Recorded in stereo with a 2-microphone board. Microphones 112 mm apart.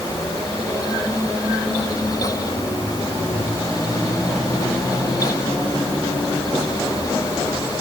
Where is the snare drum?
I don't hear a snare drum.